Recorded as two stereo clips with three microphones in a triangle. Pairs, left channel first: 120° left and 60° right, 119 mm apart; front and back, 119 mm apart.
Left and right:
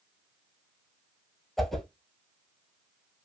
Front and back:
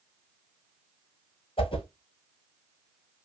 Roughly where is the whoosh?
Ahead left.